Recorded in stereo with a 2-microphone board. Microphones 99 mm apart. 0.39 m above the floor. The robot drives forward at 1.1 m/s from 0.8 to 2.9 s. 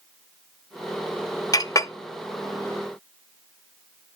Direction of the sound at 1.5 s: 40° left (ahead or behind).